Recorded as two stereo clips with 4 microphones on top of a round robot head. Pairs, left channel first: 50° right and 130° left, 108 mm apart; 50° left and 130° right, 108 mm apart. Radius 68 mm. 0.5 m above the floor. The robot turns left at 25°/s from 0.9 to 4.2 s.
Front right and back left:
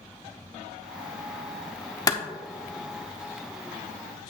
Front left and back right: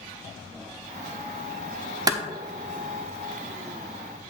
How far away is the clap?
About 1.0 m.